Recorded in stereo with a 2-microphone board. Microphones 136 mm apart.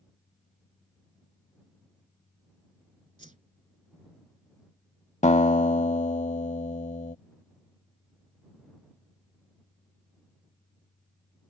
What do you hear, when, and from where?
3.2 s a whoosh: 65° right (ahead or behind)
5.2 s a guitar: 55° left (ahead or behind)